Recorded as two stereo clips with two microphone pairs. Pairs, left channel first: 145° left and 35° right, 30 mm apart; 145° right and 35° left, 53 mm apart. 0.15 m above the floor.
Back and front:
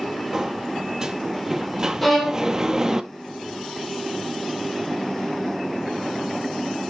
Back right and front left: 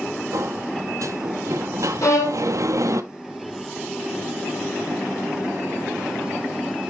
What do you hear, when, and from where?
0.3 s a sliding door: 35° left, 0.6 m
2.0 s a violin: 125° right, 1.6 m